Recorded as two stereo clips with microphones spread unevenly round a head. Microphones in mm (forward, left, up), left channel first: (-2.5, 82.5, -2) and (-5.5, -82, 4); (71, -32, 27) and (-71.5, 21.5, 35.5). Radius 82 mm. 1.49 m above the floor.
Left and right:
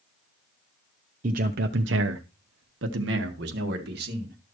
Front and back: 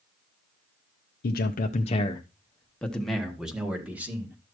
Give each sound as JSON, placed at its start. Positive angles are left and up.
{"t": 1.2, "sound": "a man speaking", "azimuth_deg": -45, "distance_m": 0.8}